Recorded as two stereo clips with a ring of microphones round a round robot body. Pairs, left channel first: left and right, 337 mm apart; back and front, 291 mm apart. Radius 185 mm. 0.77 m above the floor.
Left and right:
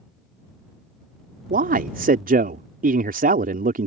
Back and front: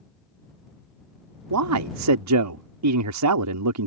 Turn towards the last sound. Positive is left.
turn(degrees=-25)